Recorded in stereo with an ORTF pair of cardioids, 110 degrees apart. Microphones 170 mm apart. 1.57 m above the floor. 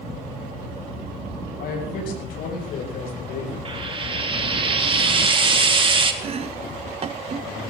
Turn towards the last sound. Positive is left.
turn(degrees=-35)